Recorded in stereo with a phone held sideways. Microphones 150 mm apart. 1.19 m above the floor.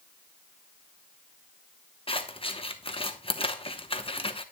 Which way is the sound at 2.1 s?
40° left (ahead or behind).